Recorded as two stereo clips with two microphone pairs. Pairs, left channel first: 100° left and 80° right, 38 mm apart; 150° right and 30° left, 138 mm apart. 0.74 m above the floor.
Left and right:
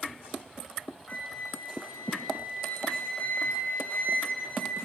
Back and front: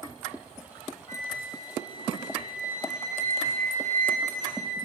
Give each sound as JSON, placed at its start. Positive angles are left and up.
{"t": 1.1, "sound": "a flute", "azimuth_deg": 55, "distance_m": 10.0}